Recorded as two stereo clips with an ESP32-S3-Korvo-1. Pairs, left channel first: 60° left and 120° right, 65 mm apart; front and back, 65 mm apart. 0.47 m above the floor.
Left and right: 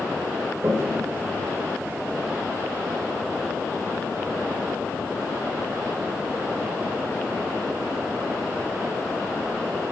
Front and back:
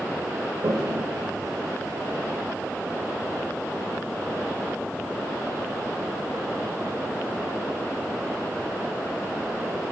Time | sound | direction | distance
0.6 | a toilet flushing | 170° right | 0.6 m